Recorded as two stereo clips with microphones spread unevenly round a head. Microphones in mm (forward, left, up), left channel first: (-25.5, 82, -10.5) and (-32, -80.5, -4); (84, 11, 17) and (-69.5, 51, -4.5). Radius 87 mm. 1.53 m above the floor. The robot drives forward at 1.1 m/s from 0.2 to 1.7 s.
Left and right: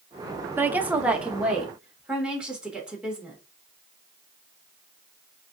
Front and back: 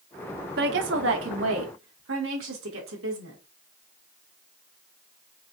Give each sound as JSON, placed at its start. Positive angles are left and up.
{"t": 0.6, "sound": "a woman speaking", "azimuth_deg": -165, "distance_m": 0.6}